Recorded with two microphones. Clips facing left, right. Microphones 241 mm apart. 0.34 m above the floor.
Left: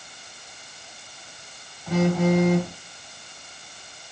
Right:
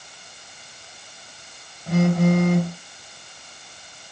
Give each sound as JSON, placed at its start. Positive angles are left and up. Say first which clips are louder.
{"t": 1.9, "sound": "a phone buzzing", "louder": "right 2 dB", "side_deg": -50, "distance_m": 2.0}